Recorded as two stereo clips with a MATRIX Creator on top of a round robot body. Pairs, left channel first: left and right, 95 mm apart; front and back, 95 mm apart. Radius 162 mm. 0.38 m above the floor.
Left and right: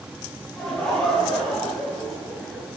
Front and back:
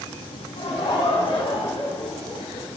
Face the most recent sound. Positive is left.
turn(degrees=5)